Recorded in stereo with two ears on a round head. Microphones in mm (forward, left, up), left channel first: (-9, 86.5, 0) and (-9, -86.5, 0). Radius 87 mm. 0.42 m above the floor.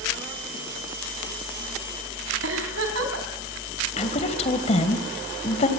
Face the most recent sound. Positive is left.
turn(degrees=35)  # may be behind; listen again after turning